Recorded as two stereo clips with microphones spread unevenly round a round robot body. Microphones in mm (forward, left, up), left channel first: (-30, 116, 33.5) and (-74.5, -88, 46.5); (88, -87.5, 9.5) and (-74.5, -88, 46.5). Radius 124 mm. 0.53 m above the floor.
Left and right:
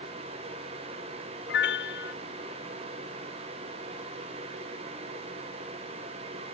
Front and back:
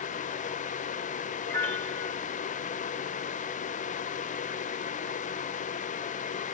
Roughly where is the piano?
Left.